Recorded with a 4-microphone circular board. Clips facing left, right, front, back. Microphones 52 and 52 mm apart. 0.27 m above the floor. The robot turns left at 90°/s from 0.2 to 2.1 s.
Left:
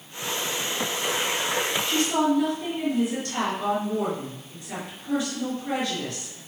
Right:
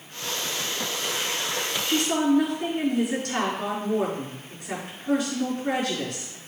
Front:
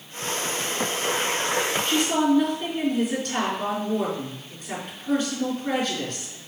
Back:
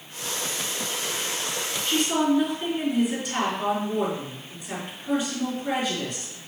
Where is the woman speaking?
75° right, 4 m; by 6.4 s 100° right, 4 m.